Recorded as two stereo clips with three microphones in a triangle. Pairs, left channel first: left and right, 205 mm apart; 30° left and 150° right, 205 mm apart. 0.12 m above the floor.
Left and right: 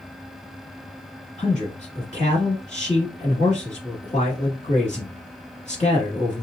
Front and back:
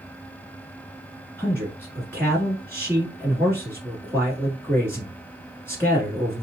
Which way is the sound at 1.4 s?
100° left.